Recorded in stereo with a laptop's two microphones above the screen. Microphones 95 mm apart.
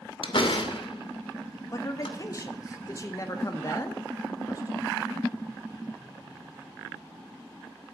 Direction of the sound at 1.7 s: 35° left (ahead or behind).